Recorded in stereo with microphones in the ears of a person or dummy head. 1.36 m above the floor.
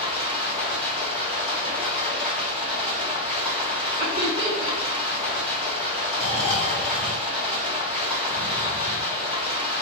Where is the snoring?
25° left (ahead or behind), 0.8 m.